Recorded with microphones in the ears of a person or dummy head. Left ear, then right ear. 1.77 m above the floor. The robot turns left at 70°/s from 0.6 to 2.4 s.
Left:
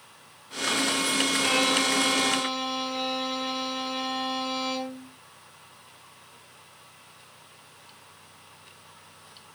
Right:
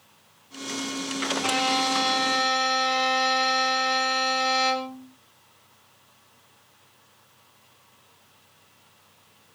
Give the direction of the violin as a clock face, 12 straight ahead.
12 o'clock.